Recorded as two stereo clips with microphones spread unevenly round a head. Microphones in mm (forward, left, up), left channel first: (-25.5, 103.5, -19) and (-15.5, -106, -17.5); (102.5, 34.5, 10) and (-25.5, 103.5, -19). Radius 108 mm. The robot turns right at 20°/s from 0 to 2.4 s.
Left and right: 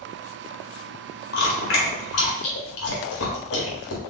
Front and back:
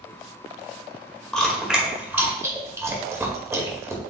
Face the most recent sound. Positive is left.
turn(degrees=75)